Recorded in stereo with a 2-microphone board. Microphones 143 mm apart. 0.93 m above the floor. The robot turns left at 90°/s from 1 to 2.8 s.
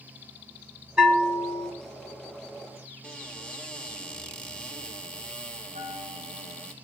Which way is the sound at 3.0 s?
10° left (ahead or behind).